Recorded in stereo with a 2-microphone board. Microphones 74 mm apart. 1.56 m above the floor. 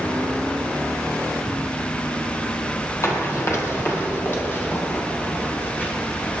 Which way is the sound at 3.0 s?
40° left (ahead or behind).